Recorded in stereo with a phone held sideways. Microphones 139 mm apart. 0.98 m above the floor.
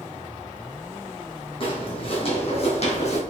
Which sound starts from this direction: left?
Footsteps, at 1.6 s.